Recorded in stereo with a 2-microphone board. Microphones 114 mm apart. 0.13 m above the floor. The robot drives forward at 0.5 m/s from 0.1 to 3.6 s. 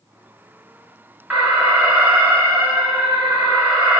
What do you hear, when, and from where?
1.3 s an alarm: 10° right (ahead or behind), 1.5 m